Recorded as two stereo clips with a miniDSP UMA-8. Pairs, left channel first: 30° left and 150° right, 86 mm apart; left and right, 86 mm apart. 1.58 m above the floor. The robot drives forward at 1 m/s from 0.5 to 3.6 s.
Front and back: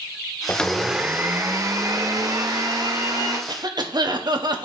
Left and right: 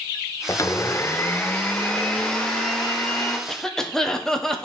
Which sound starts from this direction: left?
A blender, at 0.5 s.